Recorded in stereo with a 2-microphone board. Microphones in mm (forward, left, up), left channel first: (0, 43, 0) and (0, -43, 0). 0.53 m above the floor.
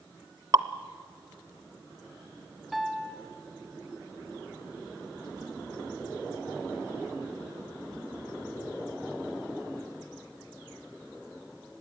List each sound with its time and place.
0.5 s dripping: 45° right (ahead or behind), 0.8 m
2.7 s a piano: centre (ahead or behind), 1.8 m